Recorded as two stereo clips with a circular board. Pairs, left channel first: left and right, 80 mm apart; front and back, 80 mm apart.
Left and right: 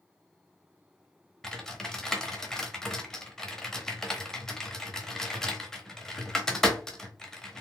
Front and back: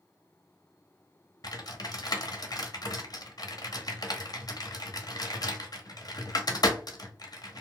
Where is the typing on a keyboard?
10° left, 0.6 m.